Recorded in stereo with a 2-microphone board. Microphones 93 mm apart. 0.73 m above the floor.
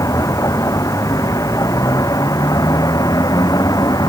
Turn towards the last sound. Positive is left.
turn(degrees=40)  # may be behind; listen again after turning